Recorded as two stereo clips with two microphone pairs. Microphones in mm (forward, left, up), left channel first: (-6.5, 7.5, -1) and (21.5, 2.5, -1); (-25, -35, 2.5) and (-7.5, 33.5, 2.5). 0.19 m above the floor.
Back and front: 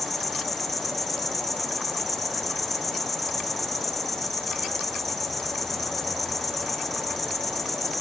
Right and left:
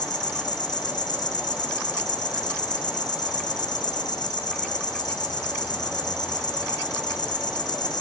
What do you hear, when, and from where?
0.0 s an insect: 105° right, 1.4 m